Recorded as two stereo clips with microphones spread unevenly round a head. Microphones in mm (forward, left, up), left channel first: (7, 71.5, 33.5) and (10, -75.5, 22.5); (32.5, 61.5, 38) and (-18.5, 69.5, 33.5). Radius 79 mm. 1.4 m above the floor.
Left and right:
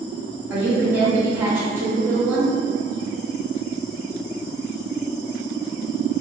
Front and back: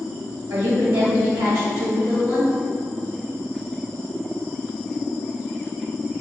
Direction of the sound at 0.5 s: 165° right.